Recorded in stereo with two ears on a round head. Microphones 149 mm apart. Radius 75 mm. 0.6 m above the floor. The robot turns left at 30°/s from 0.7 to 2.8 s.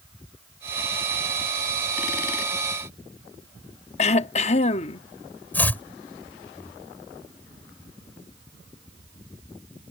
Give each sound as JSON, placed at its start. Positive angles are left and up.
{"t": 4.0, "sound": "throat clearing", "side_deg": 40}
{"t": 5.5, "sound": "chopping", "side_deg": 10}